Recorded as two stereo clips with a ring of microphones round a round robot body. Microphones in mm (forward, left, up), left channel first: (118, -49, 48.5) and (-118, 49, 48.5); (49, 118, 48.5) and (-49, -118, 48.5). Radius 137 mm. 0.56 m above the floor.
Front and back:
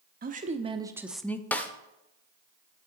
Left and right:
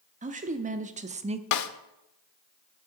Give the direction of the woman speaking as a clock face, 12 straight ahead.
5 o'clock.